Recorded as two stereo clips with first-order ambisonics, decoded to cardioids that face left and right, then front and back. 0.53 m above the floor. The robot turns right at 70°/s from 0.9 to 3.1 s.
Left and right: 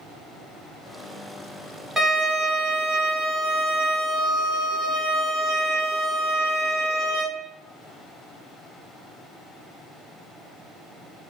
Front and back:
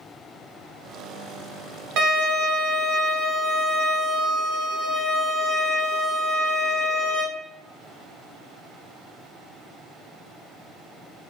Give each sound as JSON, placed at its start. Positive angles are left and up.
{"t": 2.0, "sound": "a violin", "azimuth_deg": -165, "distance_m": 0.7}